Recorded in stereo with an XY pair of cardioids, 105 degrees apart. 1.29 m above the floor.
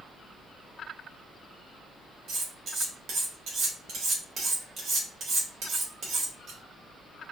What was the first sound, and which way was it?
Cutlery clinking, 65° right.